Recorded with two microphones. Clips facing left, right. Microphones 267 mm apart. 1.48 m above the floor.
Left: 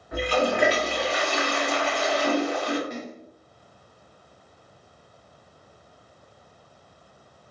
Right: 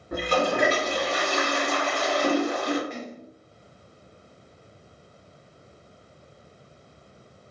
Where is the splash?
45° left (ahead or behind), 0.8 m.